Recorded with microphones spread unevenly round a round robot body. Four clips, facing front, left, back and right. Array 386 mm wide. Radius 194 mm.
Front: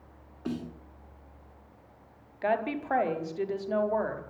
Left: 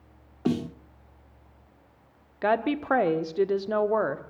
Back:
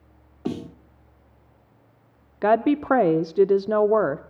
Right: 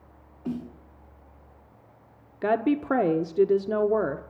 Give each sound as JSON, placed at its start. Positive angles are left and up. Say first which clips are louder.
{"t": 0.5, "sound": "a snare drum", "louder": "left 6 dB, back 5 dB", "azimuth_deg": 105, "distance_m": 0.9}
{"t": 2.4, "sound": "a woman speaking", "louder": "right 1 dB, back 10 dB", "azimuth_deg": -165, "distance_m": 1.1}